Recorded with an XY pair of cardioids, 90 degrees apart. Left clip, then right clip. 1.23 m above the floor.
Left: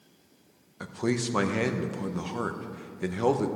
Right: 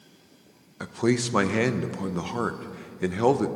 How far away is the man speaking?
About 0.8 m.